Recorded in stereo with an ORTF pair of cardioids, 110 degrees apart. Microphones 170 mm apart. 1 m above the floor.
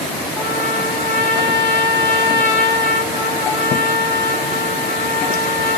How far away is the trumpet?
About 2 m.